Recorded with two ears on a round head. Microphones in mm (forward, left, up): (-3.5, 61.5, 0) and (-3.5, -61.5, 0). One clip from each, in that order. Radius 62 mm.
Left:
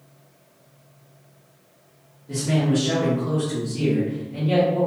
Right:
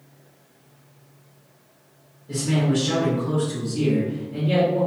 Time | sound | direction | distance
2.3 | a man speaking | 5° left (ahead or behind) | 1.8 m